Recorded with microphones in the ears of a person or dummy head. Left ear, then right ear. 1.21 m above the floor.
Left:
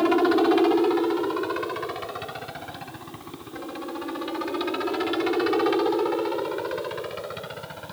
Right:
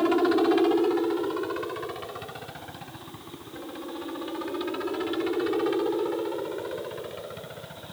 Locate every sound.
0.0 s a helicopter: 10° left (ahead or behind); by 7.9 s 25° left (ahead or behind)